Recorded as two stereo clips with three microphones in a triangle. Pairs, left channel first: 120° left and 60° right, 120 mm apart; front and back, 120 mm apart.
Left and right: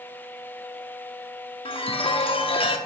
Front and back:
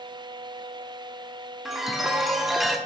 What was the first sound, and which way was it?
A chime, 90° left.